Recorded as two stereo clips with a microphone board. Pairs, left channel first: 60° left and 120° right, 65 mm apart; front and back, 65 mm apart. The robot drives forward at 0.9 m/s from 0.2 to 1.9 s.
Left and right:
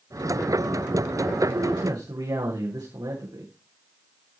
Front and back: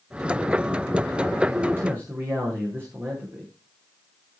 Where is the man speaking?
120° right, 8 m.